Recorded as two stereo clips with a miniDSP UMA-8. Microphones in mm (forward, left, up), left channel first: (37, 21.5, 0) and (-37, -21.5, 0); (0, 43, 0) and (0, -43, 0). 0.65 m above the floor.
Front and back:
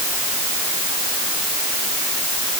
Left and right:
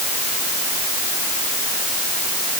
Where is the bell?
I don't hear a bell.